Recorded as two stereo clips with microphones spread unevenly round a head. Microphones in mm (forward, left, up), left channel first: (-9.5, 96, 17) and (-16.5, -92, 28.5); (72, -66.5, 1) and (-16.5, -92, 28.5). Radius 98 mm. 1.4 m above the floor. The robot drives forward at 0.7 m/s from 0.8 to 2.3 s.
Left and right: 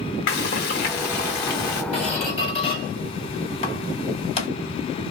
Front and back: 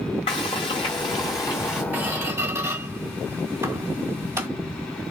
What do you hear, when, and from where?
0.3 s frying: 70° left, 1.4 m; by 1.8 s 110° left, 1.4 m
1.9 s a squeak: 140° left, 1.8 m; by 4.5 s 145° left, 2.0 m